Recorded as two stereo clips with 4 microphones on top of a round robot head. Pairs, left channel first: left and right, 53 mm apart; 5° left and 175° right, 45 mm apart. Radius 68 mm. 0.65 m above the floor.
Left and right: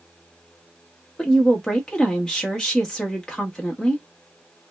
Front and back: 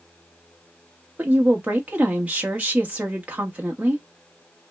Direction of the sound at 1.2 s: 160° left.